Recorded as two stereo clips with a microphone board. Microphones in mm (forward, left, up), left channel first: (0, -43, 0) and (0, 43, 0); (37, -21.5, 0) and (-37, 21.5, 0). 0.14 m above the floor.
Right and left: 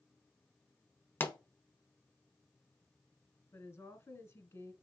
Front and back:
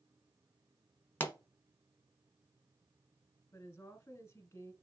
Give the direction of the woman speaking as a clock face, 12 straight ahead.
2 o'clock.